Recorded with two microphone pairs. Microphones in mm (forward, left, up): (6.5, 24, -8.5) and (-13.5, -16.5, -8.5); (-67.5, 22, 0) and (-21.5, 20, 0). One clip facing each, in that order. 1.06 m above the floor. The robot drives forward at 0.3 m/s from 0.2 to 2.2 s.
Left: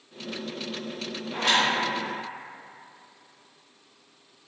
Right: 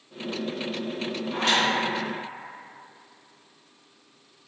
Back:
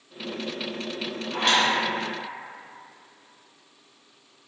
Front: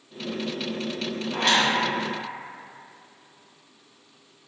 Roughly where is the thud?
I don't hear a thud.